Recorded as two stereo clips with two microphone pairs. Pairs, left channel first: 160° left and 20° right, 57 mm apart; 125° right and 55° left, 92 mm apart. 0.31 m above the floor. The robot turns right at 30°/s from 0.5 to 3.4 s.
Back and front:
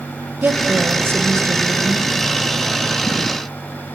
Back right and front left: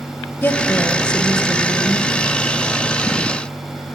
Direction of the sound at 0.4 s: 65° right.